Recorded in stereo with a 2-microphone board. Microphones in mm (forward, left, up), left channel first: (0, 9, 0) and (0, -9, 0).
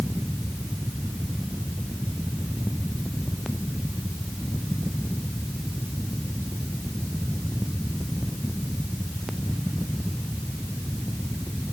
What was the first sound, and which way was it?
Only background noise.